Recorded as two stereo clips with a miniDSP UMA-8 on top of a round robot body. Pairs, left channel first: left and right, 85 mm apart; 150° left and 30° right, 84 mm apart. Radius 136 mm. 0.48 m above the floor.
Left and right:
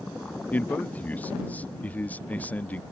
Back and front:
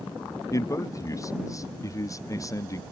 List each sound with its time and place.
0.5 s a man speaking: 150° left